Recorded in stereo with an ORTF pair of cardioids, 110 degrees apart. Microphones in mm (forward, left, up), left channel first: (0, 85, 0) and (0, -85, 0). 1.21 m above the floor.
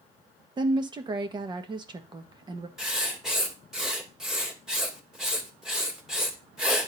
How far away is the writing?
About 2 m.